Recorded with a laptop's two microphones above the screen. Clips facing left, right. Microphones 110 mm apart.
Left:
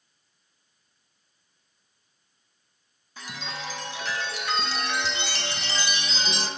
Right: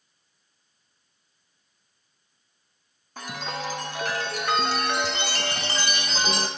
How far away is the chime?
About 0.6 m.